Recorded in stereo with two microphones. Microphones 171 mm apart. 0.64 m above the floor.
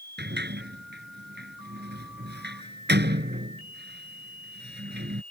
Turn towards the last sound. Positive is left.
turn(degrees=-80)